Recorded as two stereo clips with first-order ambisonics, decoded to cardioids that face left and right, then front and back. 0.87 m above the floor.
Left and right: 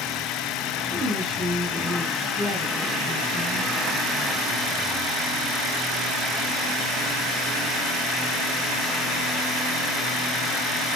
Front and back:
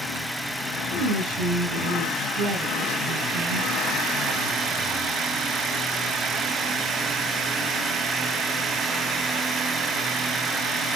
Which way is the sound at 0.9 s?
165° right.